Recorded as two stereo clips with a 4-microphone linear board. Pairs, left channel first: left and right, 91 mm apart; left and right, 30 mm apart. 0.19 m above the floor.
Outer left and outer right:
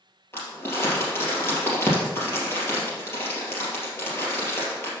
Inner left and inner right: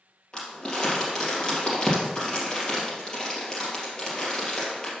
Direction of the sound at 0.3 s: 25° left (ahead or behind).